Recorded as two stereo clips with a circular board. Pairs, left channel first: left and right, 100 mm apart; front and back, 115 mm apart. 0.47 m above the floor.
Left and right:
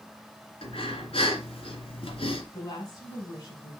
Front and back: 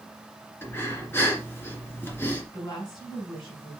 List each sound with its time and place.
0.6 s breathing: 70° left, 2.5 m
2.5 s a woman speaking: 45° left, 4 m